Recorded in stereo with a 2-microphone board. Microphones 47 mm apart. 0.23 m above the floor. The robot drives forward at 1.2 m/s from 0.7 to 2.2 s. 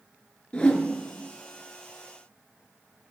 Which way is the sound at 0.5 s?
25° left (ahead or behind).